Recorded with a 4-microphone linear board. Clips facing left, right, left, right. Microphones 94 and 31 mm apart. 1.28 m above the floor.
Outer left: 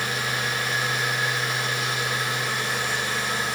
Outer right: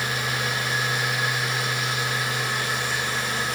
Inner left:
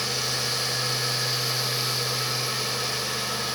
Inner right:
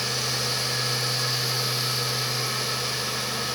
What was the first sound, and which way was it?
Only background noise.